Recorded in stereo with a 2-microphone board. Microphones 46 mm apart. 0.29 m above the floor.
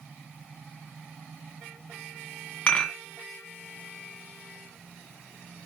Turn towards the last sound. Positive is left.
turn(degrees=20)  # may be behind; listen again after turning